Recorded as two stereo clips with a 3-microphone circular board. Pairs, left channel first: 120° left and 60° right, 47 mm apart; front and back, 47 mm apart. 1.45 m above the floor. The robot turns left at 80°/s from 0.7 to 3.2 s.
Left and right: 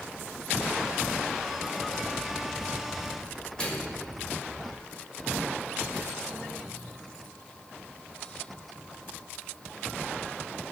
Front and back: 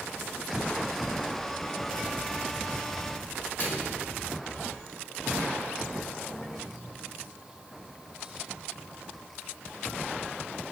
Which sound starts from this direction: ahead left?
A microwave, at 3.6 s.